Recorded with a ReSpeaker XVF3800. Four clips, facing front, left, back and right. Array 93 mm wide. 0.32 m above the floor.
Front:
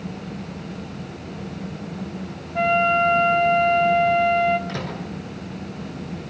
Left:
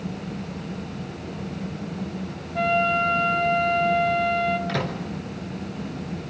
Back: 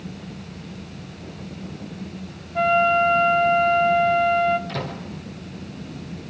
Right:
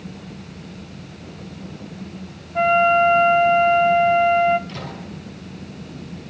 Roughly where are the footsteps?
No footsteps in this recording.